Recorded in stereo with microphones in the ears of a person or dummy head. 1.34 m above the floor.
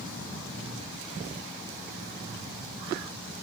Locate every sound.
0.5 s breathing: 10° left (ahead or behind), 5 m